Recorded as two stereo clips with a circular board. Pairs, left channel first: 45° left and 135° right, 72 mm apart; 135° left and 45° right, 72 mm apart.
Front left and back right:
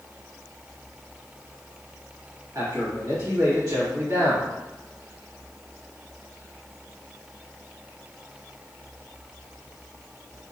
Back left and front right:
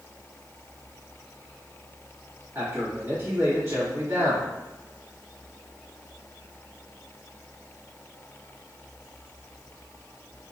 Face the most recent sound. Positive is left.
turn(degrees=-95)